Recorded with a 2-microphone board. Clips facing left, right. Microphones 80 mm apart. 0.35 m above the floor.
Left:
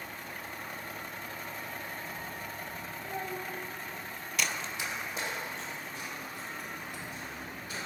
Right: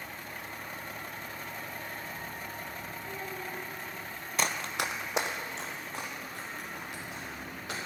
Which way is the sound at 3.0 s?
50° left (ahead or behind).